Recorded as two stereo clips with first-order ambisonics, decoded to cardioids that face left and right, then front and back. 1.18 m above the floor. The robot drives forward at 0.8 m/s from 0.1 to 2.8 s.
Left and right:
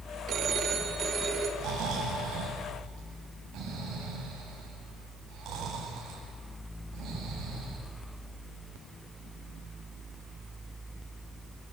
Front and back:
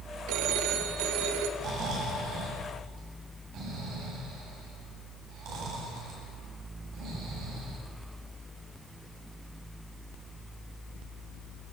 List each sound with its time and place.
0.3 s a phone ringing: 145° right, 1.6 m; by 1.5 s 160° right, 2.5 m
1.6 s snoring: 135° right, 9 m; by 7.8 s 140° right, 10 m